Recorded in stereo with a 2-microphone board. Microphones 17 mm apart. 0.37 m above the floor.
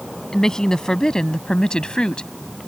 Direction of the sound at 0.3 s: 35° left (ahead or behind).